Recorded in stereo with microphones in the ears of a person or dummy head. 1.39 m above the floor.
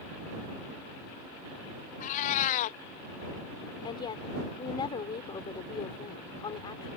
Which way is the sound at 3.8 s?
25° left (ahead or behind).